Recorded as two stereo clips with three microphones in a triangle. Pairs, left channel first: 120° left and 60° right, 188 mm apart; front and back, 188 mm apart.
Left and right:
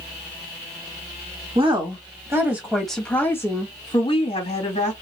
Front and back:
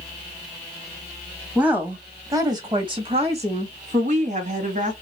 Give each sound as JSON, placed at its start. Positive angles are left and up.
{"t": 1.6, "sound": "a woman speaking", "azimuth_deg": -100, "distance_m": 1.4}